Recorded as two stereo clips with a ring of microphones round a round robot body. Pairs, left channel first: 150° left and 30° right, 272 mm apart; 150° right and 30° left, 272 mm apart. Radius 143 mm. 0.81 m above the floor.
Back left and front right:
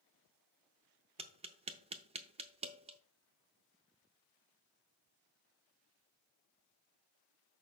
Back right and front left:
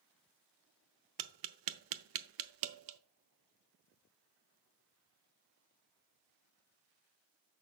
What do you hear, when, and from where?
1.2 s tapping: 40° left, 0.6 m